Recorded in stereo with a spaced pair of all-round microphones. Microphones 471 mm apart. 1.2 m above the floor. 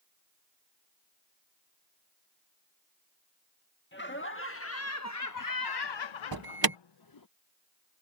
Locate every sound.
3.9 s laughter: 25° left (ahead or behind); by 7.3 s 40° left (ahead or behind)
6.3 s an alarm: 50° right (ahead or behind)